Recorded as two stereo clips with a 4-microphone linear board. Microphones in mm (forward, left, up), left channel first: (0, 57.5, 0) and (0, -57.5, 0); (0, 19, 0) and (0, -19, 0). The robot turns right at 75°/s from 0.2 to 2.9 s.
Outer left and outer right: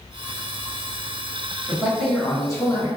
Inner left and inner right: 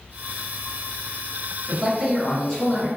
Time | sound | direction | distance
1.7 | a man speaking | 20° right | 1.4 m